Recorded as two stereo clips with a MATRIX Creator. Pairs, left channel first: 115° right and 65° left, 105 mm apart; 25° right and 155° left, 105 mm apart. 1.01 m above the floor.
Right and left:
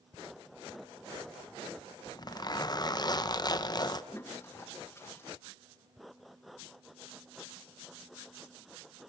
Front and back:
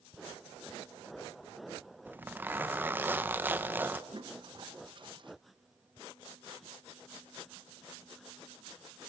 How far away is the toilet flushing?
About 1.0 m.